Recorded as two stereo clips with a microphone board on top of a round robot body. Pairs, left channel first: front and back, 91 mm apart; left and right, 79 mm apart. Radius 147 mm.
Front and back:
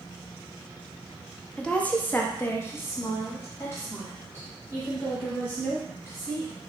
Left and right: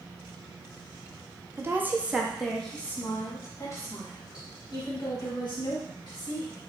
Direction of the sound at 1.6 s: 70° right.